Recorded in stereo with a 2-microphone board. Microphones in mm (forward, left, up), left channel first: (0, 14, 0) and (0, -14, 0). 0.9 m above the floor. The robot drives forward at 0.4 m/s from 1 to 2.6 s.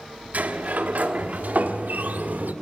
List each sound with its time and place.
0.3 s a sliding door: 70° right (ahead or behind), 1.6 m; by 2.5 s 85° right, 1.5 m